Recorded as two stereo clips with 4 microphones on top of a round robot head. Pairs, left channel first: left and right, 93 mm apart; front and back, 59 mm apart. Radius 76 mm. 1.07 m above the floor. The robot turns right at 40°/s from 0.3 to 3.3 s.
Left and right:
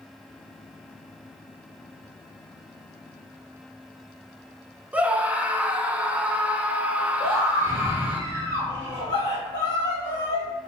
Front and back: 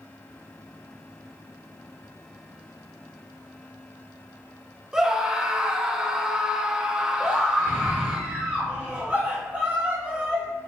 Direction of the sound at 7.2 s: 130° left.